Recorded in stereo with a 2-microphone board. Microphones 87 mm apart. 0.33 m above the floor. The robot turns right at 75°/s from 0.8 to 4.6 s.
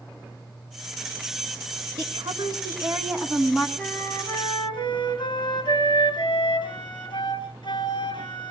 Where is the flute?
20° left, 4 m; by 8.5 s 80° left, 4 m.